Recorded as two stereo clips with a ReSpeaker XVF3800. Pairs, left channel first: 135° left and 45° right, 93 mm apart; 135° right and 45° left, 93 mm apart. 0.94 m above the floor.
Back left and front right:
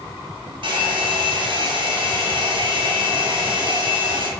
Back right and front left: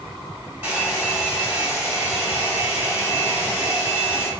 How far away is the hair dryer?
About 1.5 m.